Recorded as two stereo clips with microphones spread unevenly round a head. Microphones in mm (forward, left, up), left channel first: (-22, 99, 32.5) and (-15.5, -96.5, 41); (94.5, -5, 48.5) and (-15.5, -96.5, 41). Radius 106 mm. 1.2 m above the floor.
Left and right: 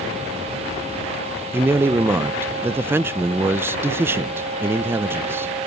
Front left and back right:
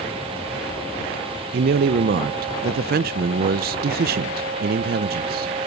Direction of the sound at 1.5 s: 170° right.